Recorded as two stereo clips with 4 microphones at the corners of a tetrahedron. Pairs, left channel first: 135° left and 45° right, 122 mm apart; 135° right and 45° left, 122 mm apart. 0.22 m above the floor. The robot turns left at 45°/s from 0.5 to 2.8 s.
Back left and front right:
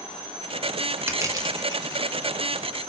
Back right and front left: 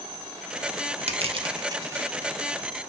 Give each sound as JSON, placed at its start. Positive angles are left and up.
{"t": 1.1, "sound": "crushing", "azimuth_deg": 20, "distance_m": 0.5}